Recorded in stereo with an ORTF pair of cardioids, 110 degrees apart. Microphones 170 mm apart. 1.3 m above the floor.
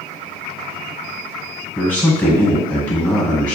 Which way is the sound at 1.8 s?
10° left.